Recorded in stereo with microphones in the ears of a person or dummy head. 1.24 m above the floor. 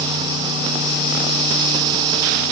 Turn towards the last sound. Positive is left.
No sound to turn to.